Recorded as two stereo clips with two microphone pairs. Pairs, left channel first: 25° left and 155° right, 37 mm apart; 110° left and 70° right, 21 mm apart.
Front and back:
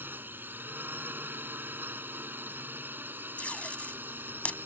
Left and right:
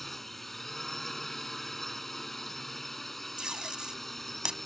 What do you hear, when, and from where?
0.0 s a drone: 170° right
3.4 s tape being pulled: 25° right